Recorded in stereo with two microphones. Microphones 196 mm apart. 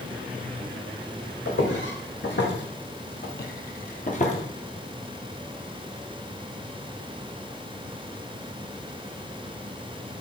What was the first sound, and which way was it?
Footsteps, 70° left (ahead or behind).